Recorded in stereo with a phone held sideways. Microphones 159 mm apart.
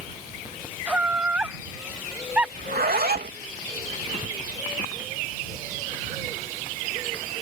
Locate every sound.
0.9 s laughter: 10° right (ahead or behind)
2.6 s a zipper: 80° right